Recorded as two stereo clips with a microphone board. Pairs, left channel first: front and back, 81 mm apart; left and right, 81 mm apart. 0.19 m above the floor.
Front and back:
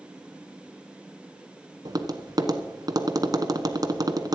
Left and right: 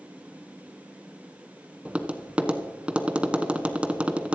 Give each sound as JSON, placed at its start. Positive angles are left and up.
{"t": 1.9, "sound": "tapping", "azimuth_deg": -160, "distance_m": 1.1}